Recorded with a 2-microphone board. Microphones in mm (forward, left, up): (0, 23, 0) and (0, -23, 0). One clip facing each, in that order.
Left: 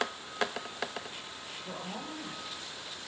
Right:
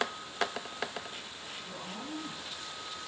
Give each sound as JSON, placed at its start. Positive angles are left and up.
{"t": 1.6, "sound": "a woman speaking", "side_deg": 70, "distance_m": 8.5}